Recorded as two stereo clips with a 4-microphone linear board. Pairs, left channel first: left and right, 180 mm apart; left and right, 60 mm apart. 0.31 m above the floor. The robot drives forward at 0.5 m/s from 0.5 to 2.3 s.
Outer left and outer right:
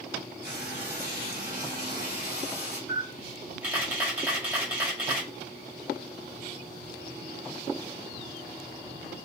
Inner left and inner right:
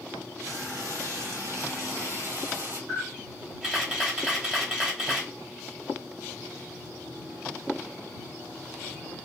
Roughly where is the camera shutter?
Centre.